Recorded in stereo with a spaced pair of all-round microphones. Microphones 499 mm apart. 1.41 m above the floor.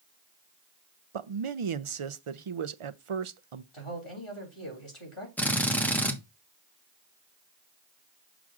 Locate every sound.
1.1 s a man speaking: 70° right (ahead or behind), 0.6 m
3.7 s a man speaking: 70° left (ahead or behind), 3.5 m
5.4 s a drill: 5° left (ahead or behind), 1.2 m